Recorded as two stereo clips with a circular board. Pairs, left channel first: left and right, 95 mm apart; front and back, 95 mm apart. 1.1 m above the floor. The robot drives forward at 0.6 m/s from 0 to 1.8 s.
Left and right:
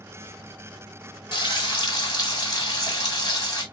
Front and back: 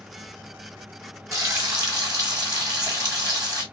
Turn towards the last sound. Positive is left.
turn(degrees=135)